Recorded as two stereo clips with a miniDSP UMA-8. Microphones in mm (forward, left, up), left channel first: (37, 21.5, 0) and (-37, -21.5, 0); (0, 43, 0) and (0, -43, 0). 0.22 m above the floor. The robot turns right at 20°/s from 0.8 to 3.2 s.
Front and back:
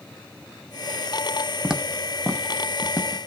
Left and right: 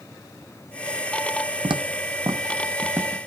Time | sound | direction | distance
1.6 | footsteps | 70° right | 0.6 m